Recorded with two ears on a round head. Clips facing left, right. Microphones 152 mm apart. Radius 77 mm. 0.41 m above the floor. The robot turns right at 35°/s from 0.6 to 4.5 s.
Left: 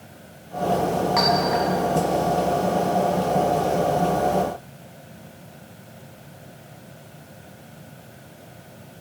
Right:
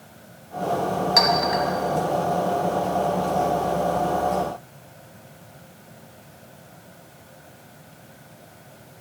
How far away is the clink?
About 1.5 m.